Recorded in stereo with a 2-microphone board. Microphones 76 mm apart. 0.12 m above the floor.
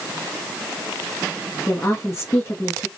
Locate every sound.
1.7 s a woman speaking: 40° left (ahead or behind), 1.9 m